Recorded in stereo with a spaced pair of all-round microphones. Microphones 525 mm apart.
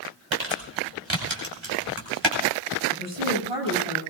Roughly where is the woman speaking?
Right.